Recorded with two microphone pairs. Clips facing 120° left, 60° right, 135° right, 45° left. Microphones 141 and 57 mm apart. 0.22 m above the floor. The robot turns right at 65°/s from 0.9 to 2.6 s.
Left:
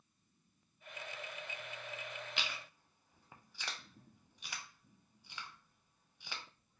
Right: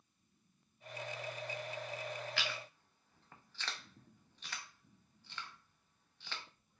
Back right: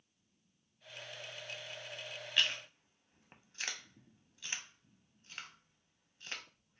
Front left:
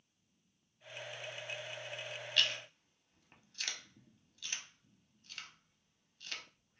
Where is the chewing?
170° left, 0.5 m; by 6.4 s 175° right, 0.5 m.